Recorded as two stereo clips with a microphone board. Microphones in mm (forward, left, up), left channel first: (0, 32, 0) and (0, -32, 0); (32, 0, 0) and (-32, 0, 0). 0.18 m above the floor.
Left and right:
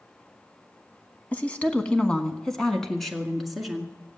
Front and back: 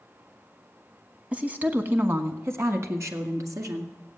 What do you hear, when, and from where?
1.3 s a woman speaking: 130° left, 1.3 m; by 3.9 s straight behind, 2 m